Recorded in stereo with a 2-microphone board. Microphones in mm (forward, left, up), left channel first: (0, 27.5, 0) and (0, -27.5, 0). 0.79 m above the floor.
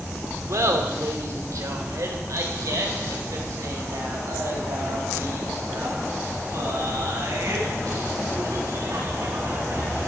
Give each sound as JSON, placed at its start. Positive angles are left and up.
{"t": 0.5, "sound": "laughter", "side_deg": -75, "distance_m": 2.0}